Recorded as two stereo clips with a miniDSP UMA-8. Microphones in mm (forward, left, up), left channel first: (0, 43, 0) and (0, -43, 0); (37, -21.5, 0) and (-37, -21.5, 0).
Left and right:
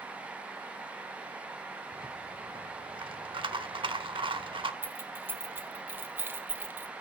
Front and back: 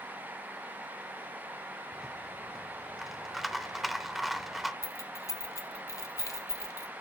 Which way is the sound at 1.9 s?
95° right.